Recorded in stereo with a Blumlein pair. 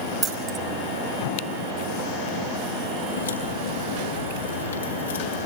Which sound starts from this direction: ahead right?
Keys jangling, at 0.2 s.